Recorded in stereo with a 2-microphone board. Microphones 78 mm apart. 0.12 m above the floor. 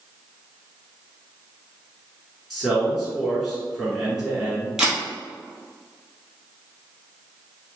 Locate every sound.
2.5 s a man speaking: centre (ahead or behind), 1.6 m
4.8 s a camera shutter: 5° right (ahead or behind), 1.3 m